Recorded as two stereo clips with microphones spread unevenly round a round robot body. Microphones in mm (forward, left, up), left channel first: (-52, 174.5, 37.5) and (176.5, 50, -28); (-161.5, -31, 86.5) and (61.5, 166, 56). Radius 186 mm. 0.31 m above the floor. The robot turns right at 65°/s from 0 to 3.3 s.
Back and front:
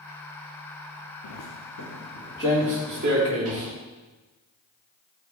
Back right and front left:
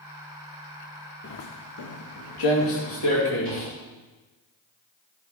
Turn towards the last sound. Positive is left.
turn(degrees=-85)